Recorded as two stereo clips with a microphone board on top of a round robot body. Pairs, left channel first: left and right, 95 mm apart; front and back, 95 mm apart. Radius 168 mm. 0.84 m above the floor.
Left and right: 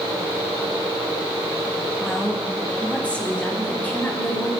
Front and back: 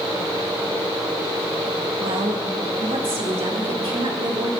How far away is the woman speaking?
About 1.9 m.